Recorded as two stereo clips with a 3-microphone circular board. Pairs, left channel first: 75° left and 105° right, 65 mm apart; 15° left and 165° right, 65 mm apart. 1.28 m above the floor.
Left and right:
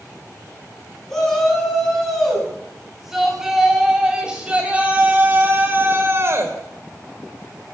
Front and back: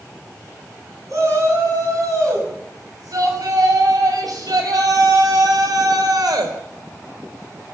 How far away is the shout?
About 9 m.